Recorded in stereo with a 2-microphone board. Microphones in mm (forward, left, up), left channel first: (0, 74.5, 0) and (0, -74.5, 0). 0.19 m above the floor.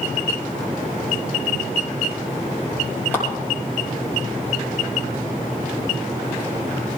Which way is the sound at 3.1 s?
15° left (ahead or behind).